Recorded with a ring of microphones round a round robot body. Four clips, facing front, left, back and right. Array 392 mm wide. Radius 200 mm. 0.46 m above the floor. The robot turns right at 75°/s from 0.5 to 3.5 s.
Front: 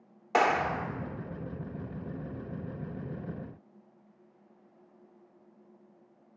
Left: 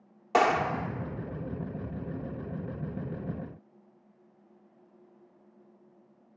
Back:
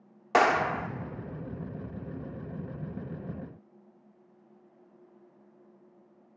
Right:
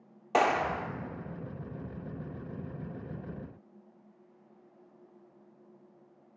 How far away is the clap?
About 0.6 m.